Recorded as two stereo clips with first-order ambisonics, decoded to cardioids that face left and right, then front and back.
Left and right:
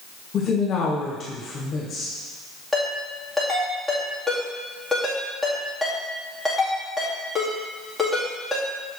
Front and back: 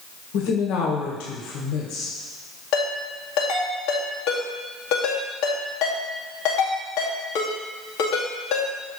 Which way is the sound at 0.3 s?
25° left.